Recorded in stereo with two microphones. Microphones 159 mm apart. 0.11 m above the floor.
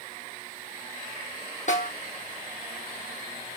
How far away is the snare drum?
About 2.5 m.